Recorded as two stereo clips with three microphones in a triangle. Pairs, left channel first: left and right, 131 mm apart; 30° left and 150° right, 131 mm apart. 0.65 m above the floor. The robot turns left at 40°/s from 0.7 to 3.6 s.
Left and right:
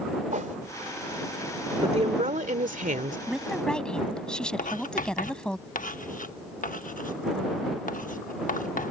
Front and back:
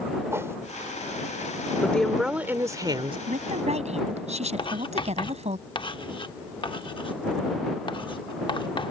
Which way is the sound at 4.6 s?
80° left.